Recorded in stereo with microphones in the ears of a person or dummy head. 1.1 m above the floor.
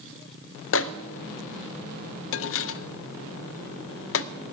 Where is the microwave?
65° left (ahead or behind), 0.5 m.